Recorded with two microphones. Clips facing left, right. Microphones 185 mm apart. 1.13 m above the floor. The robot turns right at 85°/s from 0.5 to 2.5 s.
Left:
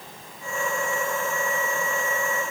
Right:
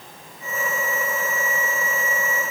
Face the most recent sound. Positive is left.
No sound to turn to.